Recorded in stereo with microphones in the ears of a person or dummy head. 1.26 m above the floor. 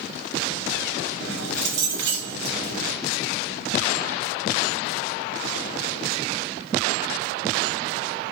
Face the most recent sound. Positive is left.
turn(degrees=-80)